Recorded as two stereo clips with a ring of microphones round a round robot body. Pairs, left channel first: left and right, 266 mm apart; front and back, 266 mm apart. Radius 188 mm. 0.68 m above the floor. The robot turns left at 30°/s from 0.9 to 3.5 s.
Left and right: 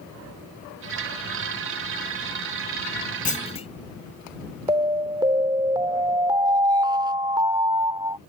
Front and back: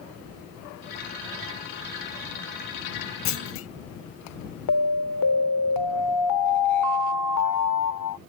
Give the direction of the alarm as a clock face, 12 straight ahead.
1 o'clock.